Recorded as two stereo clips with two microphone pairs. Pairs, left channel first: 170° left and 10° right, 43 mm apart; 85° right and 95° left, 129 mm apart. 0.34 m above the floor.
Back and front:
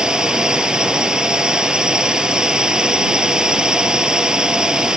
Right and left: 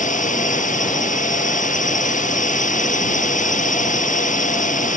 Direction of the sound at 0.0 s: 80° right.